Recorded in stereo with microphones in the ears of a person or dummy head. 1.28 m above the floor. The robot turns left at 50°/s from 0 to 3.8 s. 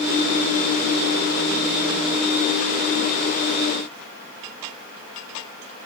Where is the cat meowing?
I don't hear a cat meowing.